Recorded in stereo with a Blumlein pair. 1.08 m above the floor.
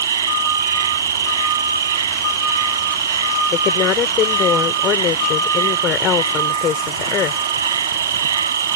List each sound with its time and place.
0.0 s an insect: 65° right
3.5 s a woman speaking: 30° left